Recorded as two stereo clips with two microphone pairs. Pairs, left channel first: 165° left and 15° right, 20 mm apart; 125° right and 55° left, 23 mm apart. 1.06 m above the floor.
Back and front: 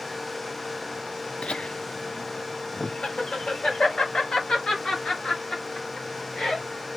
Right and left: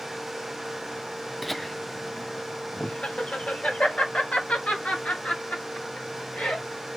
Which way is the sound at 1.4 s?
140° left.